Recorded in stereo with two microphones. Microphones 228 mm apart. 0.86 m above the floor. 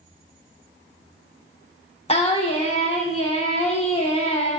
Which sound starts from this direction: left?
Singing, at 2.1 s.